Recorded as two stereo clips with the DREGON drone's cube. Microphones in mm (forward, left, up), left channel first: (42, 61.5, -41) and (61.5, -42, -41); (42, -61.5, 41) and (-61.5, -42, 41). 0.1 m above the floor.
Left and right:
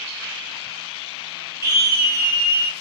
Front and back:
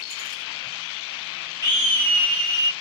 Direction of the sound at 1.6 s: 45° right.